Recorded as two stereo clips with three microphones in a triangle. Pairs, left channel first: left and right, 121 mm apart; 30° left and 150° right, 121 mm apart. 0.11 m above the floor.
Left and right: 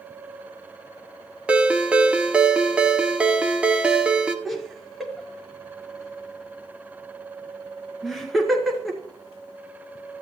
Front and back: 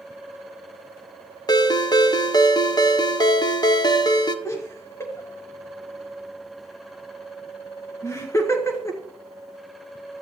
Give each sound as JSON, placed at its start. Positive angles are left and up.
{"t": 1.5, "sound": "a ringtone", "azimuth_deg": -15, "distance_m": 0.7}
{"t": 4.5, "sound": "laughter", "azimuth_deg": 0, "distance_m": 1.3}